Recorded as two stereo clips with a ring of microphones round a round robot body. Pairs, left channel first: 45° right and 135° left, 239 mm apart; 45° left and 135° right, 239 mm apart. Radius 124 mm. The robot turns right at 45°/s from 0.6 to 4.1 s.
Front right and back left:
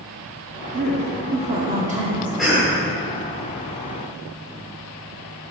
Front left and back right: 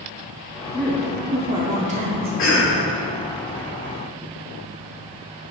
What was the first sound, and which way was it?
A woman speaking, 125° left.